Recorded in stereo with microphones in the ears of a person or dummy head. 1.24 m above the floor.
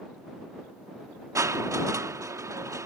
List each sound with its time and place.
1.4 s crushing: 15° right (ahead or behind)